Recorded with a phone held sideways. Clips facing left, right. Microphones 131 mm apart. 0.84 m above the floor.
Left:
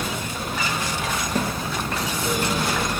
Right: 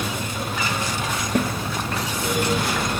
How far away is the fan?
About 8 m.